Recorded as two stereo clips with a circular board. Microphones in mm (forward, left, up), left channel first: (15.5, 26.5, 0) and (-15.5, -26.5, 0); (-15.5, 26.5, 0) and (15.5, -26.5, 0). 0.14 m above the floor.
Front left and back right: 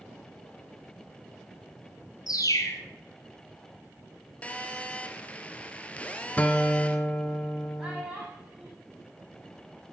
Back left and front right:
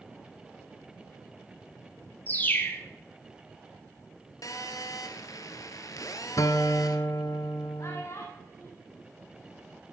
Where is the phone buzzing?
130° left, 1.2 m.